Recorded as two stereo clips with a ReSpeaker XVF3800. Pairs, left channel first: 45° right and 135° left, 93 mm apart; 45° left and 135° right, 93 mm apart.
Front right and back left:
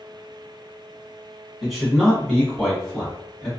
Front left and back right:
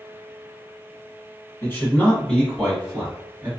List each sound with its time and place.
1.6 s a man speaking: 45° left, 1.4 m; by 3.5 s 135° right, 1.4 m